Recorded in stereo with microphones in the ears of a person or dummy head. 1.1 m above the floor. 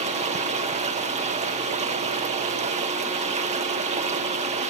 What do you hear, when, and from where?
0.0 s running water: 30° right (ahead or behind), 0.8 m